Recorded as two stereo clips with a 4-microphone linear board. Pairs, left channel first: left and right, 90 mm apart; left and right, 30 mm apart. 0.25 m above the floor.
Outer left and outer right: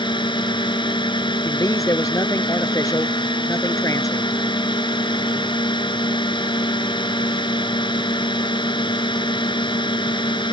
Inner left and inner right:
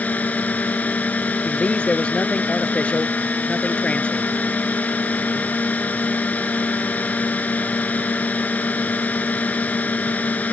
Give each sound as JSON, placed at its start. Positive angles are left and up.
{"t": 0.0, "sound": "a drone", "side_deg": 65}
{"t": 1.4, "sound": "a man speaking", "side_deg": 40}